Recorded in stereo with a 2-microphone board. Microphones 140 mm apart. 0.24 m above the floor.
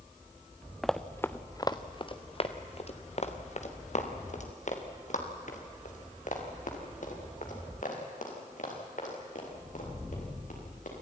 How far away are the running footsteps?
About 1.0 m.